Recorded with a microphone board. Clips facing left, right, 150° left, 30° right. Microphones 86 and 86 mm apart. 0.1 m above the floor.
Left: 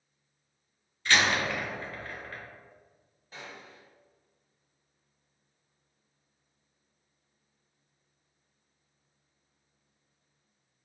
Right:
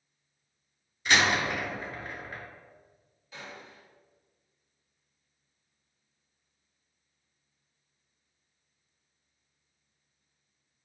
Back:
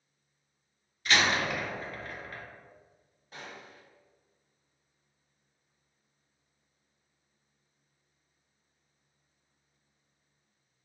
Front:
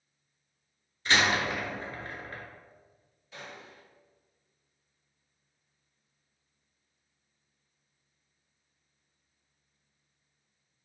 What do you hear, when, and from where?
1.1 s a door slam: 35° right, 0.9 m
3.3 s a gunshot: 120° left, 2.0 m